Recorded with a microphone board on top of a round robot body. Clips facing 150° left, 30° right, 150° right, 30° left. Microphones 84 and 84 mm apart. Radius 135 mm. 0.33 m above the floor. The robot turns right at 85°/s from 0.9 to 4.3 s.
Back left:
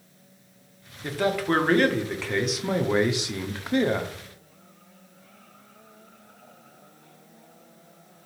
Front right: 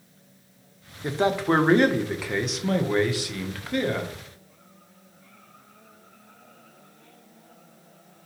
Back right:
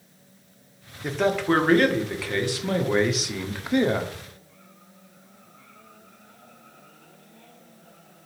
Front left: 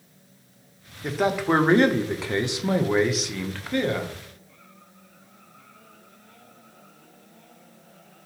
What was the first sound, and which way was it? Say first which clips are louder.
A man speaking: front right 2 dB, even; 60° right.